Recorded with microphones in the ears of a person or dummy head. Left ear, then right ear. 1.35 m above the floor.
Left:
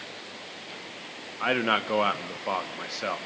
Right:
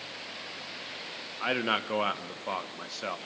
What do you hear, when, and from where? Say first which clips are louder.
1.4 s a man speaking: left 4 dB; 5° left (ahead or behind), 1.0 m